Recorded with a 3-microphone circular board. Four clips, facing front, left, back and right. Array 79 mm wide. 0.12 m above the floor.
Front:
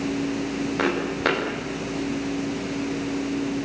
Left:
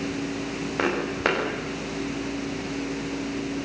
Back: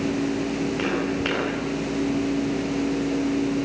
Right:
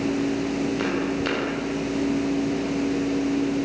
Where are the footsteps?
65° left, 8.5 m.